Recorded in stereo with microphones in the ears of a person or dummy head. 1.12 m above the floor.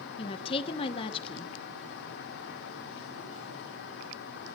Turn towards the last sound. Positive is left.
turn(degrees=30)  # may be behind; listen again after turning